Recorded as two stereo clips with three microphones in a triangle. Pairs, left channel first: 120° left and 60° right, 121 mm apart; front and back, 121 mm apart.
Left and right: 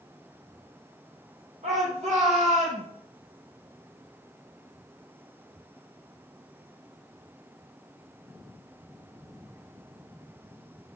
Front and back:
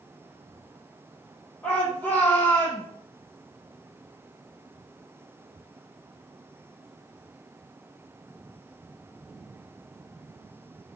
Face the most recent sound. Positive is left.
turn(degrees=-70)